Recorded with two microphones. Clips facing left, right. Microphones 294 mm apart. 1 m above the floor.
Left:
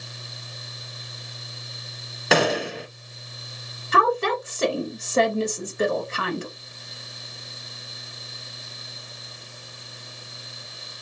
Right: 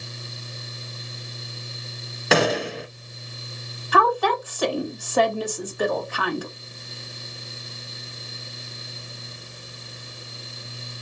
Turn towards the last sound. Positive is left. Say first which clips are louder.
# right 1 dB
turn(degrees=25)  # may be behind; listen again after turning